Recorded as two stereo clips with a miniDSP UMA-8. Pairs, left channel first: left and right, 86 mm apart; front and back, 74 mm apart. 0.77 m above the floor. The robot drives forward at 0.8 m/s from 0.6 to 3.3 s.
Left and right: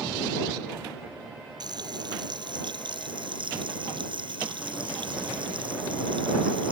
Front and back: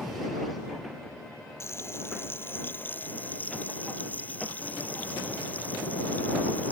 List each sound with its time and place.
1.6 s frying: 55° right; by 6.7 s 70° right